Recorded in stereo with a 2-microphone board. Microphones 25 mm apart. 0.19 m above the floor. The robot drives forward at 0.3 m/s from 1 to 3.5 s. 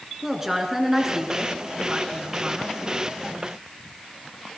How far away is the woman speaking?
About 2.5 m.